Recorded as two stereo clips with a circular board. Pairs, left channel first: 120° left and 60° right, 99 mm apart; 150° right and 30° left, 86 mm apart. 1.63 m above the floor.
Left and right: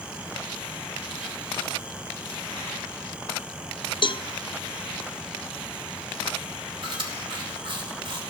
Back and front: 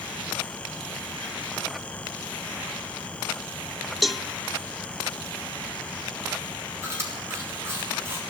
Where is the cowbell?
120° left, 0.5 m.